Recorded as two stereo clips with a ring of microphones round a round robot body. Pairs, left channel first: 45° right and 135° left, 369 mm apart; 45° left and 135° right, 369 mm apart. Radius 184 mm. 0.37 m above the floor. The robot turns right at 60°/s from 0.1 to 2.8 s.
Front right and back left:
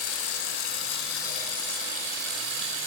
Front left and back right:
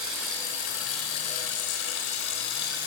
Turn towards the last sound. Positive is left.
turn(degrees=110)